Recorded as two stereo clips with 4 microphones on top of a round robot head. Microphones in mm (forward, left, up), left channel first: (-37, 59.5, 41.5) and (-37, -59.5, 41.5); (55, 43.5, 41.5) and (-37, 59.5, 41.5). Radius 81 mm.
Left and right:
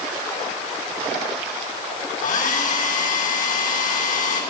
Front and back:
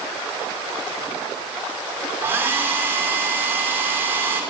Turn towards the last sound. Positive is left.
turn(degrees=105)